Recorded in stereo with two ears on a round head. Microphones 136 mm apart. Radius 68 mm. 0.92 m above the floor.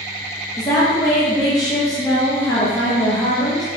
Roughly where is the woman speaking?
Left.